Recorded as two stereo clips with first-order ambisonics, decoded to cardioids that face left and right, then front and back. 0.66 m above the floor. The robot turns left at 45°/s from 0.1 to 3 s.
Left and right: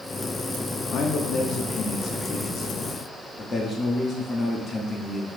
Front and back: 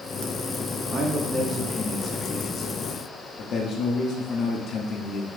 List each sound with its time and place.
0.9 s a man speaking: 125° left, 0.9 m; by 5.3 s 30° left, 0.9 m